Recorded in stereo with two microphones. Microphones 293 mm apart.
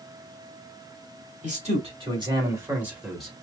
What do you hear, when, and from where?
1.4 s a man speaking: 25° right (ahead or behind), 2 m; by 3.3 s 5° left (ahead or behind), 1.6 m